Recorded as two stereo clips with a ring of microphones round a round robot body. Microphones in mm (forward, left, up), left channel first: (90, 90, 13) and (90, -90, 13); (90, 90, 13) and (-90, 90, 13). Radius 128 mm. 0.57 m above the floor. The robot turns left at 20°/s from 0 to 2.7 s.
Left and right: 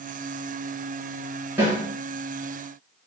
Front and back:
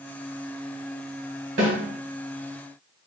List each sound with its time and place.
1.6 s a snare drum: 170° right, 1.5 m; by 1.8 s 175° right, 1.5 m